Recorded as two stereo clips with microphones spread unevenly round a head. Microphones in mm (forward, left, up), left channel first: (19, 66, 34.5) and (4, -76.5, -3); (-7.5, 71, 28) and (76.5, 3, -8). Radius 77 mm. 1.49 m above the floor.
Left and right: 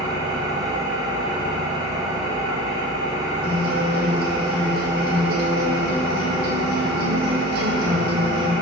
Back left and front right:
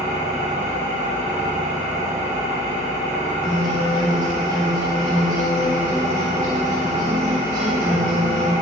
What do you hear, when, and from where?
0.0 s an engine running: 25° right, 3 m
3.4 s a guitar: 75° right, 3 m